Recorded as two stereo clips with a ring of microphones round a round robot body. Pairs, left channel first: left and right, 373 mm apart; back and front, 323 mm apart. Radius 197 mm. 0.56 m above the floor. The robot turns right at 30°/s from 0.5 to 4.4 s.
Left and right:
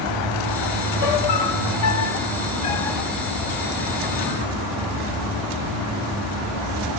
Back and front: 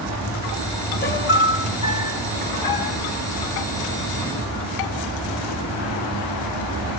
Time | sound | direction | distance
1.0 | a piano | 120° left | 1.7 m